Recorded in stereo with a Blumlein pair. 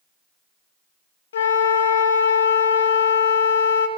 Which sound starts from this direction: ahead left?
A flute, at 1.3 s.